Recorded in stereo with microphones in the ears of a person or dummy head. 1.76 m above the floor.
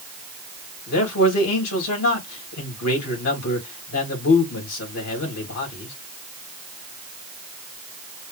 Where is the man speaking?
85° left, 3.5 m.